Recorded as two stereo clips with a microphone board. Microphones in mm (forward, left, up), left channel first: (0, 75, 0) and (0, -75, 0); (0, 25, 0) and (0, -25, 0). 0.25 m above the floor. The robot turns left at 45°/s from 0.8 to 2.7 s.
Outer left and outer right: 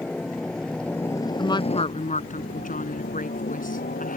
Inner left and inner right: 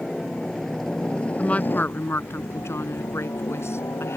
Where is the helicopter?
5° left (ahead or behind); by 4.2 s 75° left (ahead or behind).